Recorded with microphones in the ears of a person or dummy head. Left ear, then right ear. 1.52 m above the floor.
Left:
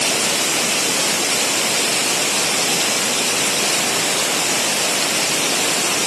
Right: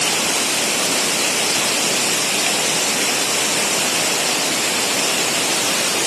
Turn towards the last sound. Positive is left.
No sound to turn to.